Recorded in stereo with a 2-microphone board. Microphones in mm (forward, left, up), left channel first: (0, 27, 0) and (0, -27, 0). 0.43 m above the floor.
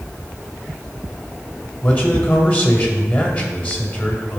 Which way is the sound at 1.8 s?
35° left (ahead or behind).